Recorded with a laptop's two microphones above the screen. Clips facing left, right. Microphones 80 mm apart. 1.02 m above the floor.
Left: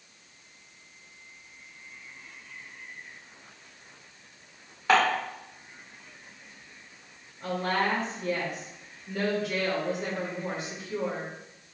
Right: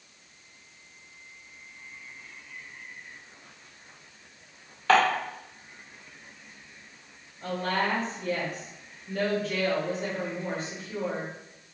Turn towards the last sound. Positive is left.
turn(degrees=10)  # may be behind; listen again after turning